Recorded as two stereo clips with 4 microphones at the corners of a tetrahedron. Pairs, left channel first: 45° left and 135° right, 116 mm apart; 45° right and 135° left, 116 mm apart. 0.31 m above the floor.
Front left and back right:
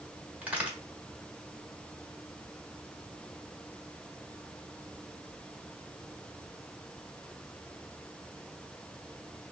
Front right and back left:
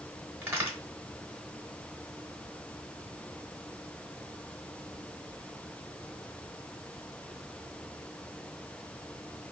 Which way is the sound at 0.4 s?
165° left.